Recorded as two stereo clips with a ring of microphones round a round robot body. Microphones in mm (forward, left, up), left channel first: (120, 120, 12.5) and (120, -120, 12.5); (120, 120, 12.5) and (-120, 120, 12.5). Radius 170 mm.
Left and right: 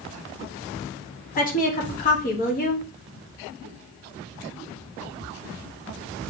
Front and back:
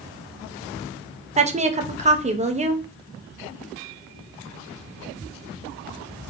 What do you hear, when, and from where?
1.4 s a woman speaking: 130° left, 0.9 m